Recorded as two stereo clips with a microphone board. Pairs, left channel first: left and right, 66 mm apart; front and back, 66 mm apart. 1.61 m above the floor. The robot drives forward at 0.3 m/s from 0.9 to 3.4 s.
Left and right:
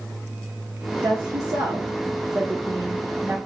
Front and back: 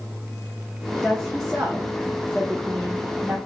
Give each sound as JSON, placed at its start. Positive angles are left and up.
{"t": 1.0, "sound": "a woman speaking", "azimuth_deg": -90, "distance_m": 0.9}